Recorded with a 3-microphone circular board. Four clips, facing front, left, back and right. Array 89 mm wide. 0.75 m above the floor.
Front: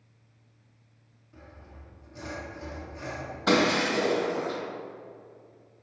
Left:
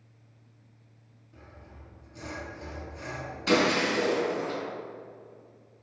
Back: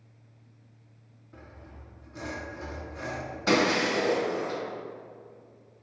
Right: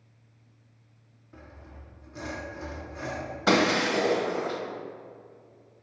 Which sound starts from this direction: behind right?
Sawing, at 1.3 s.